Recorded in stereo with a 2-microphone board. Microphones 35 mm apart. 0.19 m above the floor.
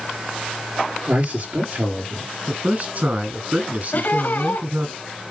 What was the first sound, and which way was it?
A man speaking, 55° right (ahead or behind).